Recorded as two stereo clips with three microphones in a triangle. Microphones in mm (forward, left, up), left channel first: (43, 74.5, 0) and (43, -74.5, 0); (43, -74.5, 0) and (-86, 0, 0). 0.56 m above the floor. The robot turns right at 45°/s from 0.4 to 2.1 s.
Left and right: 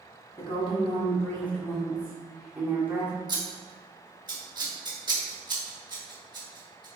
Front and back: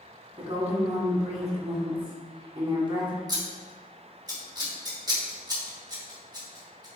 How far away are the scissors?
About 1.0 m.